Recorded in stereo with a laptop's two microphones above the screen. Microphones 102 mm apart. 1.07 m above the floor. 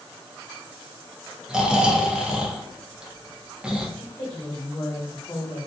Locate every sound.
1.5 s snoring: 5° right (ahead or behind), 0.5 m
4.0 s a woman speaking: 35° left (ahead or behind), 1.2 m